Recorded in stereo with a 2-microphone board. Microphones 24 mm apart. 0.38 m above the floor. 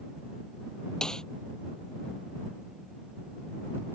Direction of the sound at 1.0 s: 30° left (ahead or behind).